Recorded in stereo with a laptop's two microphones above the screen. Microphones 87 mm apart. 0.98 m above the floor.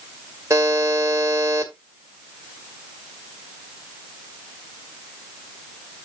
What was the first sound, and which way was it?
A buzzer, 35° right (ahead or behind).